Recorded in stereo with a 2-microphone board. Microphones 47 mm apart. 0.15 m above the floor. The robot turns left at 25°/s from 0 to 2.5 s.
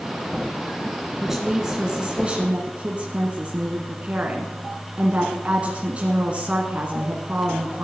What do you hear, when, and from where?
1.2 s a woman speaking: 15° right, 1.6 m; by 7.8 s 45° right, 1.6 m